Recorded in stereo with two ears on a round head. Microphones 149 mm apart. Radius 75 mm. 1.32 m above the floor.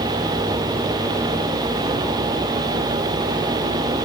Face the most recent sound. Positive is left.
No sound to turn to.